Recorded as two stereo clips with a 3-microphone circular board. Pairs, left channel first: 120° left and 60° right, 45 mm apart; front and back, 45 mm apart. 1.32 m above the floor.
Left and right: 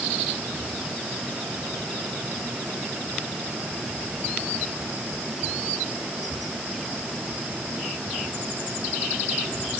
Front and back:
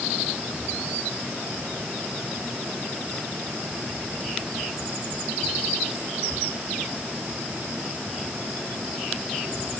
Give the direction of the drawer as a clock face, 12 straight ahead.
No drawer in this recording.